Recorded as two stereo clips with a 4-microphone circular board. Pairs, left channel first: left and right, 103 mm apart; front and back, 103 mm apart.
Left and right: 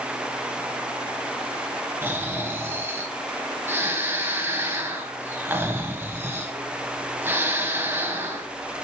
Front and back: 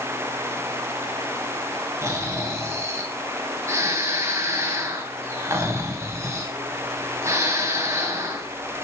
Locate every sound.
2.0 s snoring: 140° right, 1.5 m